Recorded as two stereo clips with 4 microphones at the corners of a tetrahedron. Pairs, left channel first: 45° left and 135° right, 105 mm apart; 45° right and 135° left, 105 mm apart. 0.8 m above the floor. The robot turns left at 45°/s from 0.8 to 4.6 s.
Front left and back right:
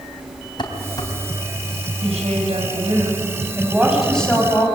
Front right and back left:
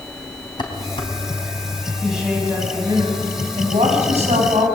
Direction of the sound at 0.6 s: Straight ahead.